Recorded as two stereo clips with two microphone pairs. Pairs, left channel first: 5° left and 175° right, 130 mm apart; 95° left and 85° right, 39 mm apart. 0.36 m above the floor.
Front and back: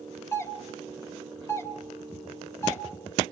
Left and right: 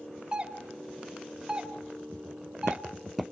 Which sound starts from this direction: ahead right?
A doorbell, at 0.3 s.